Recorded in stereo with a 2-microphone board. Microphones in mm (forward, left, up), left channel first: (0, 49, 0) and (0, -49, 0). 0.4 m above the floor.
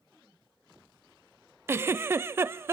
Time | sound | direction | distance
1.7 | a giggle | 25° right (ahead or behind) | 0.6 m